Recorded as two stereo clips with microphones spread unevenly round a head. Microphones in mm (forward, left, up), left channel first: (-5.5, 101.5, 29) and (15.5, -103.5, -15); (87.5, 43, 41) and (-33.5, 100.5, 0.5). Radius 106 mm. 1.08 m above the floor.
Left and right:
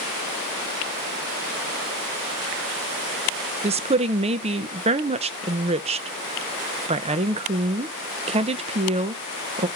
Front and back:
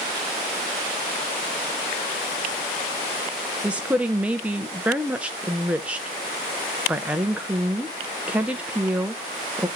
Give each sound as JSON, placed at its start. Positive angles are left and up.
{"t": 3.6, "sound": "a woman speaking", "azimuth_deg": -135, "distance_m": 0.6}